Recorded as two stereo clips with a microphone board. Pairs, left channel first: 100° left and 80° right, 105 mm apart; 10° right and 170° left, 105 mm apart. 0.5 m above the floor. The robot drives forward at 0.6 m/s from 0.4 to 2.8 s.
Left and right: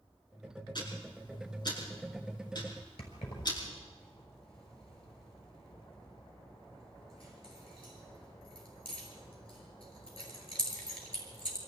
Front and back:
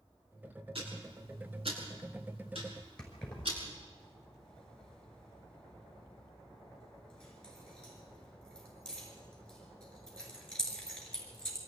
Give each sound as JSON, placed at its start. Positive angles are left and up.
{"t": 0.8, "sound": "ticking", "azimuth_deg": 145, "distance_m": 7.0}
{"t": 3.0, "sound": "keys jangling", "azimuth_deg": 70, "distance_m": 6.0}